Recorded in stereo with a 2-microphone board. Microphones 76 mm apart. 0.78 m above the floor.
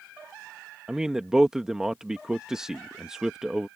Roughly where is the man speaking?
Centre.